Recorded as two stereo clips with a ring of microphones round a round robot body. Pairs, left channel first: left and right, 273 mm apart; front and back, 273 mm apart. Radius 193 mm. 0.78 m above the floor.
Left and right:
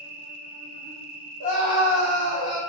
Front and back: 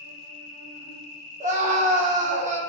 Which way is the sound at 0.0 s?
35° right.